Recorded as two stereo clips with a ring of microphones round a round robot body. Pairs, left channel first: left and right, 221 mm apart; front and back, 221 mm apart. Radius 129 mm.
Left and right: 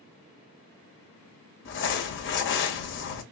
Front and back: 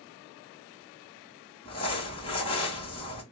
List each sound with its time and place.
1.6 s crumpling: 65° left, 1.7 m